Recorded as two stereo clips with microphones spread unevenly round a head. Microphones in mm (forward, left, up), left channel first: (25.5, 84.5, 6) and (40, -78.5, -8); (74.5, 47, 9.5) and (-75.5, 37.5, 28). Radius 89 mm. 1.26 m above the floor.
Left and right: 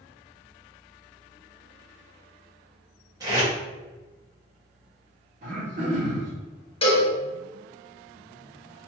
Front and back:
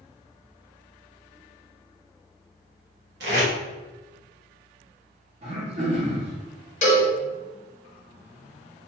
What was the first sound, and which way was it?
Tape being pulled, 155° right.